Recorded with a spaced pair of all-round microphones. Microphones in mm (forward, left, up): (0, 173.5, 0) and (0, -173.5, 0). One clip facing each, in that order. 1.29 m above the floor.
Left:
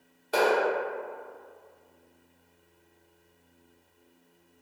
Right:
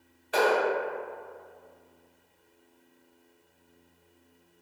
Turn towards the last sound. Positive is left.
turn(degrees=55)  # may be behind; listen again after turning